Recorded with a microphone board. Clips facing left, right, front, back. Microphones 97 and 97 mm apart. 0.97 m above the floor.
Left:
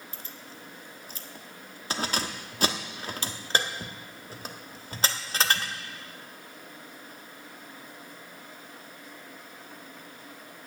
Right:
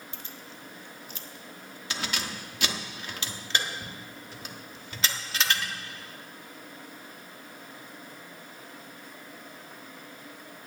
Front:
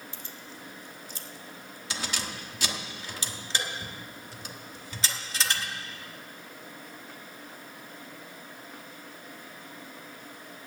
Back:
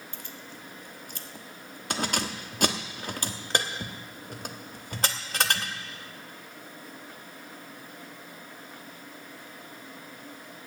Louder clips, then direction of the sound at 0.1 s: Even, back 1 dB; 140° left.